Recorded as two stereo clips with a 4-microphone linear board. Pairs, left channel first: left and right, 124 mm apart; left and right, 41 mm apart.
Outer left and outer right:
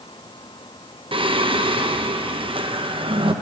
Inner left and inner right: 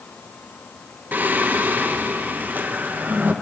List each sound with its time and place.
1.1 s singing: 45° right (ahead or behind), 0.8 m